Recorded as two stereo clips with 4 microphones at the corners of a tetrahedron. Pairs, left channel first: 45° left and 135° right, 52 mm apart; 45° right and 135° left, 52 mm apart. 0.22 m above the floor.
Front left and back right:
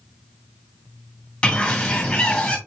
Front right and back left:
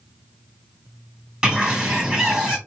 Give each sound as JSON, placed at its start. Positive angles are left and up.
{"t": 1.4, "sound": "a bird", "azimuth_deg": 90, "distance_m": 1.5}